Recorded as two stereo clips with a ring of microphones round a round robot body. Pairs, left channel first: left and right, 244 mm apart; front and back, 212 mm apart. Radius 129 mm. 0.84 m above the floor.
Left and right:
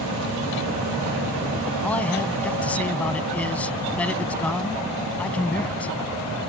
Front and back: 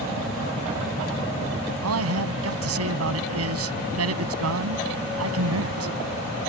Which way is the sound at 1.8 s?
175° left.